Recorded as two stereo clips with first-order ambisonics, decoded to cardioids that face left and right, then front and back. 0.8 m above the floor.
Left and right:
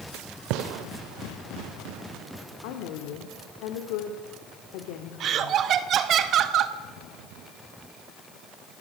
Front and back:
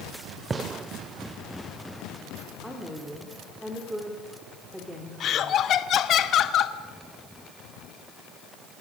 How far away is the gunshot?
About 0.8 m.